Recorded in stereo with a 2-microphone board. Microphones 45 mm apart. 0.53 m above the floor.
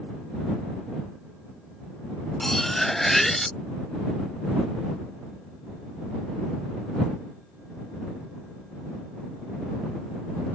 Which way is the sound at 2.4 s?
5° left (ahead or behind).